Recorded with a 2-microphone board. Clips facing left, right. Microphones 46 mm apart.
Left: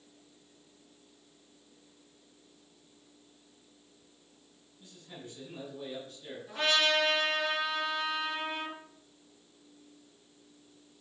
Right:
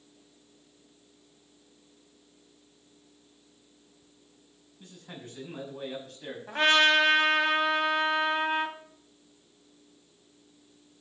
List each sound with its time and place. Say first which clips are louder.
4.8 s a man speaking: right 3 dB; 75° right (ahead or behind), 6 m; by 6.4 s 85° right, 6 m
6.5 s a trumpet: right 6 dB; 60° right (ahead or behind), 2.5 m